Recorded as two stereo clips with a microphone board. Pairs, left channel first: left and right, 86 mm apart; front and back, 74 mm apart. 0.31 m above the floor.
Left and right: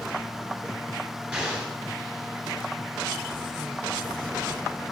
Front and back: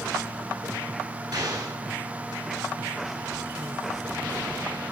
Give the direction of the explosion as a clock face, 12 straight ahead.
5 o'clock.